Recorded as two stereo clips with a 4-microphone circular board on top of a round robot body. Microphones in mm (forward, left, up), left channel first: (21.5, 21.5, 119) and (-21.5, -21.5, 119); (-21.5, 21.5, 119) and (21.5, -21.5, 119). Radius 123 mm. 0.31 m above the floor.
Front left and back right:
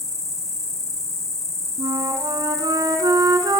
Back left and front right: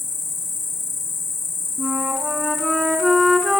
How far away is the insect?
About 1.0 m.